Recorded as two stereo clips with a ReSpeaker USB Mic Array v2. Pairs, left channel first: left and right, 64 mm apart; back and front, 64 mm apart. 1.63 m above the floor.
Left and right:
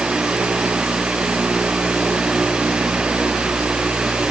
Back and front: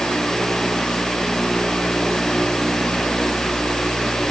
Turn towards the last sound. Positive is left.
No sound to turn to.